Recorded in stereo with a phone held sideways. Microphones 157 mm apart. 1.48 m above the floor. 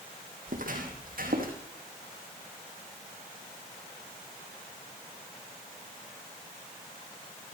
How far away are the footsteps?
About 3 m.